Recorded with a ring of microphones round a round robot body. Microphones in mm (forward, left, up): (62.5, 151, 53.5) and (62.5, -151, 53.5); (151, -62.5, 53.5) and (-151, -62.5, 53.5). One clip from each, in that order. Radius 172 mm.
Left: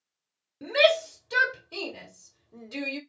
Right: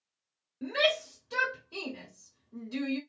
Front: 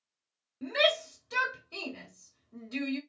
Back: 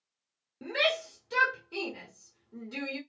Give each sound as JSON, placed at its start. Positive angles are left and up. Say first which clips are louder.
{"t": 0.6, "sound": "a shout", "louder": "left 6 dB, front 2 dB", "azimuth_deg": 95, "distance_m": 1.2}